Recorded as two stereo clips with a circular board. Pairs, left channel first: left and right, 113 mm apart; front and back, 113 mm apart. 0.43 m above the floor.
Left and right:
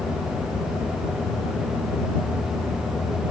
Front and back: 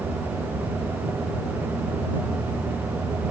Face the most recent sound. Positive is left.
No sound to turn to.